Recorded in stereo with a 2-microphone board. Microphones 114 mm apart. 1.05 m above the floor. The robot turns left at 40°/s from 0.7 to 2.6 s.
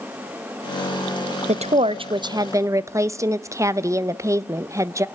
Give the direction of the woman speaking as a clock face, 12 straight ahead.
4 o'clock.